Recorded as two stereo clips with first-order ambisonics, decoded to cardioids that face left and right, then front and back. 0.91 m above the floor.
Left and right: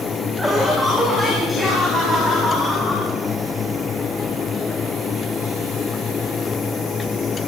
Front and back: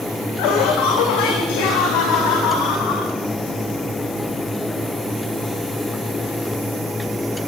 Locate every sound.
0.4 s laughter: straight ahead, 4 m; by 3.1 s 5° left, 8 m